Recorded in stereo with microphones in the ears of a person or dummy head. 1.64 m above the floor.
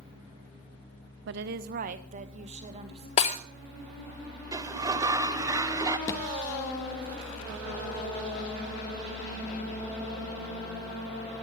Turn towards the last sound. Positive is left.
turn(degrees=20)  # may be behind; listen again after turning